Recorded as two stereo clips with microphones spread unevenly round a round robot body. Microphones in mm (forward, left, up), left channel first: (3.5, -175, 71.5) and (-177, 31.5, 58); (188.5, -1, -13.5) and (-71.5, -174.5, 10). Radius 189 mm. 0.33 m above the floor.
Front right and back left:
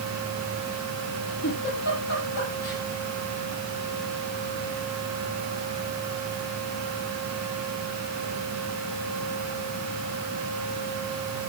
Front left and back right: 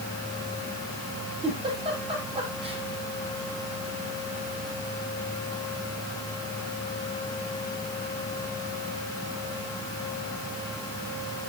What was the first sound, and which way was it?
A giggle, 75° right.